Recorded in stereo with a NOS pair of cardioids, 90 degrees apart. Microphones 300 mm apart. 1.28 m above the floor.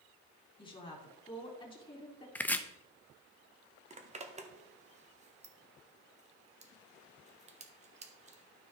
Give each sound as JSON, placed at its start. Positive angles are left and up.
{"t": 0.6, "sound": "a woman speaking", "azimuth_deg": 15, "distance_m": 3.5}
{"t": 2.4, "sound": "chopping", "azimuth_deg": 5, "distance_m": 0.8}
{"t": 3.9, "sound": "a zipper", "azimuth_deg": -25, "distance_m": 1.4}